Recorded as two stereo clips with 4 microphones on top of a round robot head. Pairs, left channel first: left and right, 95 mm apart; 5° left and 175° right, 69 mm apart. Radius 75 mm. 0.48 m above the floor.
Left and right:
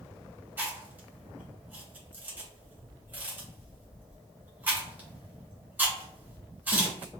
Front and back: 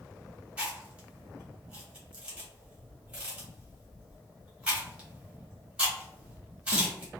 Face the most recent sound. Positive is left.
turn(degrees=-130)